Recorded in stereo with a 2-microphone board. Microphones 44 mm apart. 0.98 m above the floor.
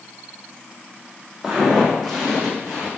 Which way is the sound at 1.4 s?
10° right (ahead or behind).